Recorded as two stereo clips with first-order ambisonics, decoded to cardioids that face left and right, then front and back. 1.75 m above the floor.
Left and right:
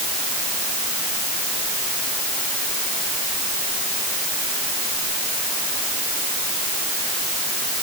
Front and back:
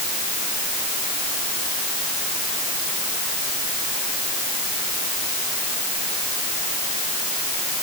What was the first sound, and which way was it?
Only background noise.